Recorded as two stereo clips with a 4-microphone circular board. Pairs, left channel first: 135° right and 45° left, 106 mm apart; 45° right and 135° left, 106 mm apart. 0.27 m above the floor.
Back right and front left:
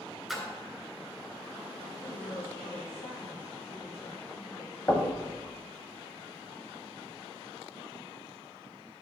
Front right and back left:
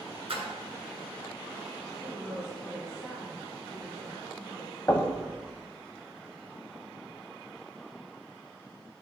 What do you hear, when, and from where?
0.3 s a splash: 135° left, 3 m
2.0 s a woman speaking: 145° right, 3.5 m
4.9 s knocking: 90° right, 1.4 m